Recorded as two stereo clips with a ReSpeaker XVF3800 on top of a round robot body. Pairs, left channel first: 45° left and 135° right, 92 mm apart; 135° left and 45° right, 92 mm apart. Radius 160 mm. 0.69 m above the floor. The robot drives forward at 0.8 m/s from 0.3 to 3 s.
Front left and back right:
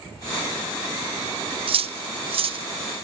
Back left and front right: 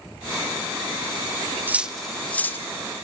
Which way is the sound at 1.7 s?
115° right.